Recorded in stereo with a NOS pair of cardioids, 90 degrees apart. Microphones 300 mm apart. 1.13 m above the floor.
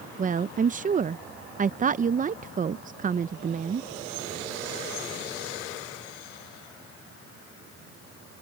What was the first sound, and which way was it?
A woman speaking, 25° right.